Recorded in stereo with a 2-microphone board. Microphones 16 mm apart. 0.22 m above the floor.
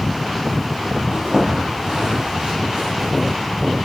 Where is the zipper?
50° right (ahead or behind), 6.5 m.